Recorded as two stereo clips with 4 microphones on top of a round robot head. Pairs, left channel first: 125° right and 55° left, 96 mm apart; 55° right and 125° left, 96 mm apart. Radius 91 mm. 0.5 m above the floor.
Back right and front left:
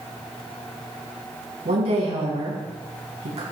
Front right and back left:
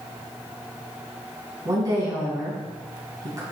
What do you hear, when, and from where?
1.6 s a woman speaking: 70° left, 4.5 m